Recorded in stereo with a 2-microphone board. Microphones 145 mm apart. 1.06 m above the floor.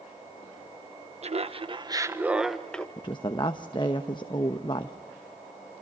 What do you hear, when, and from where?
1.2 s laughter: 45° right (ahead or behind), 1.1 m; by 2.9 s 10° left (ahead or behind), 1.3 m
3.0 s a woman speaking: 35° left (ahead or behind), 1.0 m